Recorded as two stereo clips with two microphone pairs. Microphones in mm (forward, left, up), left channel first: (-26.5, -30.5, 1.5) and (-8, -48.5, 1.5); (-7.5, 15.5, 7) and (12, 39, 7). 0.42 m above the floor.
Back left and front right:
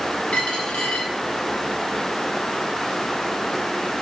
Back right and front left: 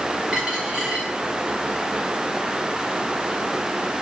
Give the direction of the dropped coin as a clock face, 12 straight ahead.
8 o'clock.